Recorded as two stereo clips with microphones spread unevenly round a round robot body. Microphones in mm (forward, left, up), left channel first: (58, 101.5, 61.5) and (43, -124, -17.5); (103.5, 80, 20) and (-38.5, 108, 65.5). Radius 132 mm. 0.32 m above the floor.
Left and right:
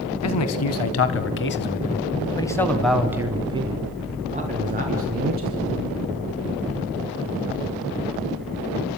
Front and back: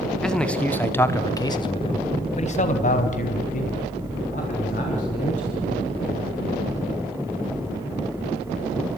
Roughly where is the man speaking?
Left.